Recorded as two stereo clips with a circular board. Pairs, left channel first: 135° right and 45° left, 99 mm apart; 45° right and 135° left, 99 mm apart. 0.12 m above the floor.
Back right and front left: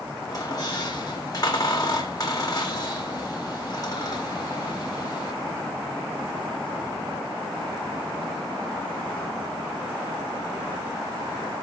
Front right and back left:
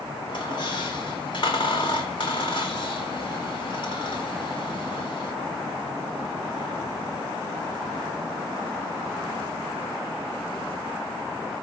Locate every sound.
0.3 s a squeak: 85° right, 3 m